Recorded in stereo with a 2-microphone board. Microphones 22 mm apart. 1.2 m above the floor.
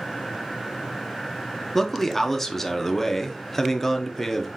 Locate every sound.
1.8 s a man speaking: 10° left (ahead or behind), 0.7 m